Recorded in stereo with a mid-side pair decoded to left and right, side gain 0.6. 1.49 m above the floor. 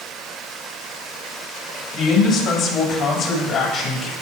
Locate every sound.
1.9 s a man speaking: 70° left, 7 m